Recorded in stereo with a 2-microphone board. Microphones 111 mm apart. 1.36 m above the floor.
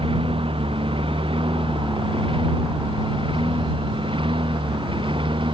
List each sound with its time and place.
0.0 s a lawn mower: 55° right (ahead or behind); by 5.5 s 50° right (ahead or behind)